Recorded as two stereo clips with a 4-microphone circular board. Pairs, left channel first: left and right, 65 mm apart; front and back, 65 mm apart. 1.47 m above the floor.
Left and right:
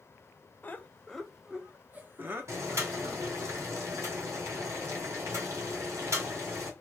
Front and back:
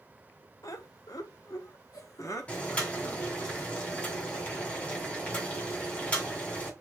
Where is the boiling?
65° right, 2.0 m.